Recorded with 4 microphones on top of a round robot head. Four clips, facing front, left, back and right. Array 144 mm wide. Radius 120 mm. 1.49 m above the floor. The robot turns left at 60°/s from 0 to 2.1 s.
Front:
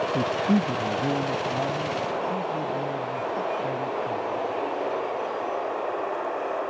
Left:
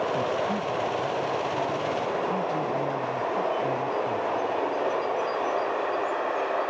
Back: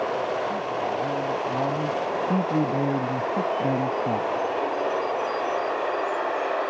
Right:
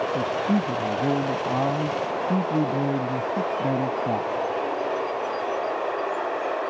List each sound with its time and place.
0.1 s a man speaking: 15° right; by 4.3 s 135° right